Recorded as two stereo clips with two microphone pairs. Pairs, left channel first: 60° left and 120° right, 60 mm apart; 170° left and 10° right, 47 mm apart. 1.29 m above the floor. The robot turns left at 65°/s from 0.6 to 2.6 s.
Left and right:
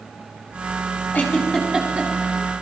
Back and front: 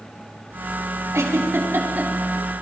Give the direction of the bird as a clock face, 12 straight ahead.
I don't hear a bird.